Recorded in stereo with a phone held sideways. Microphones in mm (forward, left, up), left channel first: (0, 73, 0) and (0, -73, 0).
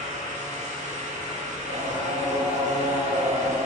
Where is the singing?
80° right, 1.5 m.